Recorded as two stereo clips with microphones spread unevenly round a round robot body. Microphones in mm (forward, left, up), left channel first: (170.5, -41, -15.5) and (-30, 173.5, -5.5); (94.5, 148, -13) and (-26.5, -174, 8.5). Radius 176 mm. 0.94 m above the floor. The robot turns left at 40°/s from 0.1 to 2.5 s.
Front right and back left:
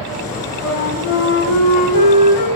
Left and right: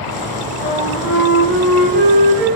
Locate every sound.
0.6 s a flute: 5° left, 4 m; by 2.5 s 70° right, 4 m